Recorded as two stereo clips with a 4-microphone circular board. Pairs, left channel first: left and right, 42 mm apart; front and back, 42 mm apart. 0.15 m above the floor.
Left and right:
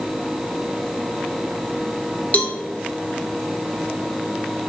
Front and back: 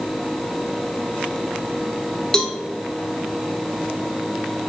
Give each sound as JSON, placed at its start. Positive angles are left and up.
{"t": 2.3, "sound": "a cowbell", "azimuth_deg": 65, "distance_m": 0.8}